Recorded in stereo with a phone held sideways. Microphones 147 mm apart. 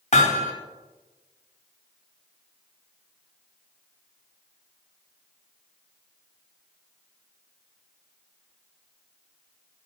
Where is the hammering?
50° left (ahead or behind), 1.3 m.